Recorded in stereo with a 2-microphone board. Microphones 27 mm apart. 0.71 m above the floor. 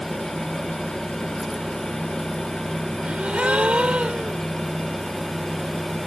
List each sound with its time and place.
3.0 s a gasp: 50° right (ahead or behind)